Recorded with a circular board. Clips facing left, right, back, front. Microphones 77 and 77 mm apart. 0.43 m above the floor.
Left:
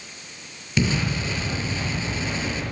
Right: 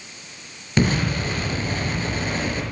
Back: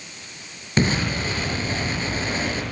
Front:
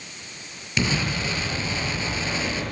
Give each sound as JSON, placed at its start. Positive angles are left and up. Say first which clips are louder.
{"t": 0.8, "sound": "an explosion", "louder": "right 3 dB, back 3 dB", "azimuth_deg": -130, "distance_m": 6.0}